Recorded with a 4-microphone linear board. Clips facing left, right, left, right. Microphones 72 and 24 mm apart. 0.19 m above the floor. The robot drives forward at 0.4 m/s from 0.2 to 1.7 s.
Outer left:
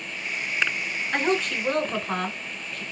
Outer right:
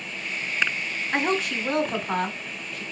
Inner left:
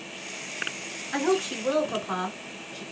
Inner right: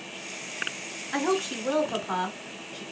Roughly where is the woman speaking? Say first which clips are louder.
Even, inner left 1 dB; centre.